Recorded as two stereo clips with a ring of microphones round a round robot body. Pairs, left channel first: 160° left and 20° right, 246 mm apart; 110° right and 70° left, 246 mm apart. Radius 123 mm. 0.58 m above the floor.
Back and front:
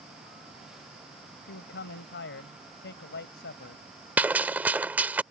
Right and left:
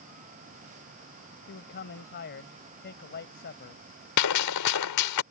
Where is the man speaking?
160° right.